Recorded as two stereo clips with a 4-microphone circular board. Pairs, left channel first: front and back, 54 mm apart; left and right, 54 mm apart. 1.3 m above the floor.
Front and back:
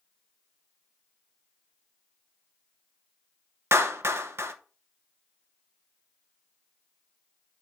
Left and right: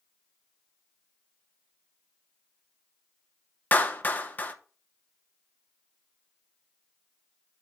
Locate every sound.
3.7 s a clap: 145° left, 1.0 m